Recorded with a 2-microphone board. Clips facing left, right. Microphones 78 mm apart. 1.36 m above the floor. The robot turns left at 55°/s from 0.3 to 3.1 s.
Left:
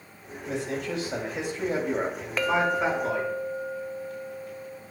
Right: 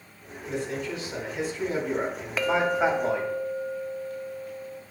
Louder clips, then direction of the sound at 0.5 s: Even; 110° left.